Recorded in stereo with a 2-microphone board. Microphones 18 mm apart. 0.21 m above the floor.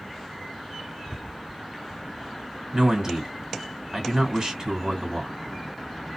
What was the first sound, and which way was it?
A man speaking, 40° right (ahead or behind).